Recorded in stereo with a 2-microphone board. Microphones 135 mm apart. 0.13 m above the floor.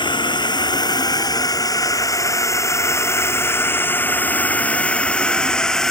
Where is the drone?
35° left (ahead or behind); by 5.9 s 5° left (ahead or behind).